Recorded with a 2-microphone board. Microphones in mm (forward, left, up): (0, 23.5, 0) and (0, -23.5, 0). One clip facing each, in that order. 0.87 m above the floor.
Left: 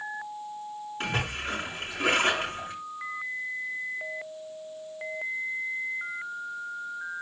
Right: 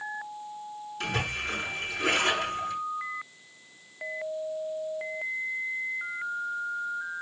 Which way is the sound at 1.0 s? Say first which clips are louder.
Even; 35° left (ahead or behind).